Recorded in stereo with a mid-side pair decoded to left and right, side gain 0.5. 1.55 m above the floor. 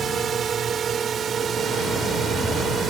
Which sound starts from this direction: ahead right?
A drone, at 0.0 s.